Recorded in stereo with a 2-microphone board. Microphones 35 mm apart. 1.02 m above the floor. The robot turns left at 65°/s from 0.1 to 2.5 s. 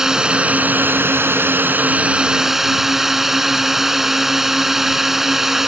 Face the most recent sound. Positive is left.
turn(degrees=-170)